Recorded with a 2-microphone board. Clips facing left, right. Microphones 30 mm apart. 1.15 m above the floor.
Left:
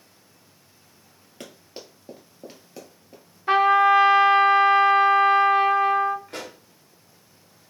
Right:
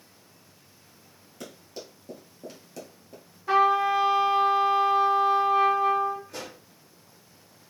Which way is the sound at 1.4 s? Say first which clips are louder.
Even; 40° left (ahead or behind).